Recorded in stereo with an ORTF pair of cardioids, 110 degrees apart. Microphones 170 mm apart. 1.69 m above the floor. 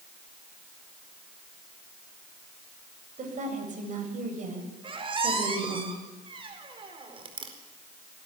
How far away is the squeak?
About 4.5 m.